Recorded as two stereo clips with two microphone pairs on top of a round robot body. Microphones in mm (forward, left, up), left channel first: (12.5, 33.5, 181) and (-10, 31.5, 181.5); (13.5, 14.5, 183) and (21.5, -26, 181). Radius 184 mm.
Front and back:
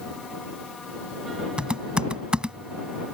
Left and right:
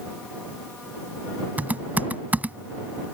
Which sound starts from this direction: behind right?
Typing on a keyboard, at 1.6 s.